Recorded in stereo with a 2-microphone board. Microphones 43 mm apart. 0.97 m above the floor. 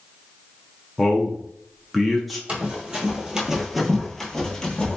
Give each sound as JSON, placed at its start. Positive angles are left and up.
{"t": 1.0, "sound": "a man speaking", "side_deg": 0, "distance_m": 0.5}
{"t": 2.5, "sound": "running footsteps", "side_deg": -30, "distance_m": 1.2}